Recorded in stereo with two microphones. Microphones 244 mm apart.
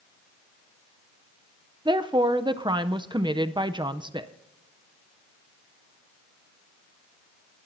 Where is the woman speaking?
20° right (ahead or behind), 0.6 m.